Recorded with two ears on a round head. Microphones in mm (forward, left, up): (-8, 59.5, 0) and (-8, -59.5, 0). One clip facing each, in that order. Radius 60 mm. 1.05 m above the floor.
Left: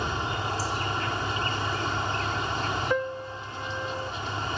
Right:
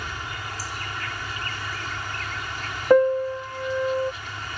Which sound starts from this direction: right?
A piano, at 2.9 s.